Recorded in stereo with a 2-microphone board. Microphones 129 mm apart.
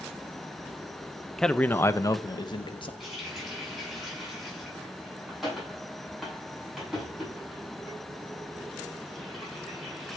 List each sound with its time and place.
1.4 s a man speaking: 5° left (ahead or behind), 0.7 m; by 2.9 s 40° left (ahead or behind), 1.2 m
3.0 s a running tap: centre (ahead or behind), 6.5 m